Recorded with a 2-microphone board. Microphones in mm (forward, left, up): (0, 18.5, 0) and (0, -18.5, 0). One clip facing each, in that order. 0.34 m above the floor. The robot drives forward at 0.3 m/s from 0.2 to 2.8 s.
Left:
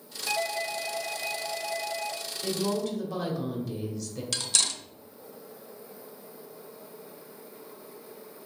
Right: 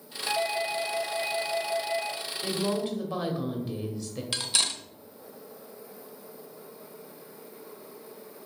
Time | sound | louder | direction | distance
0.3 | a doorbell | right 2 dB | 35° right (ahead or behind) | 1.5 m
2.4 | a woman speaking | even | 25° right (ahead or behind) | 1.6 m
4.3 | cutlery clinking | right 1 dB | 20° right (ahead or behind) | 0.6 m